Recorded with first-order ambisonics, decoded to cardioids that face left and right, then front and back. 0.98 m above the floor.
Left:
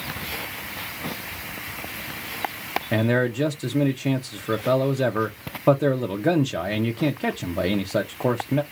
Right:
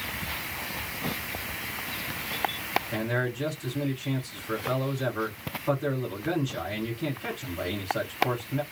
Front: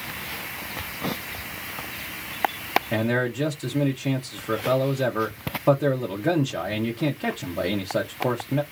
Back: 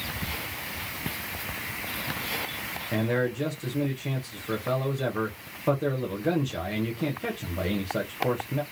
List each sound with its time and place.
2.9 s a man speaking: 70° left, 0.6 m